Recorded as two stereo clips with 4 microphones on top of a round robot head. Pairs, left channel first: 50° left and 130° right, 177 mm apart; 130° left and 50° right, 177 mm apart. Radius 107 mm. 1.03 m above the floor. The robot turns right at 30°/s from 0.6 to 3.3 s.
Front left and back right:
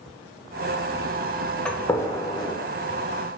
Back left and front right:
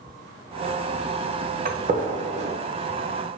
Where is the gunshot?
35° right, 1.1 m; by 2.5 s 10° right, 1.1 m.